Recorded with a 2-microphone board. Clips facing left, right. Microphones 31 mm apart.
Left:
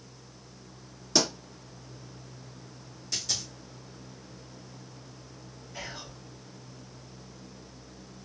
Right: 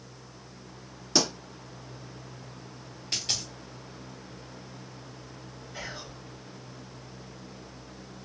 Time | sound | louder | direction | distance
1.1 | a pop | even | centre (ahead or behind) | 1.9 m
3.1 | a dropped coin | right 2 dB | 50° right (ahead or behind) | 1.2 m
5.7 | whispering | right 1 dB | 25° right (ahead or behind) | 1.9 m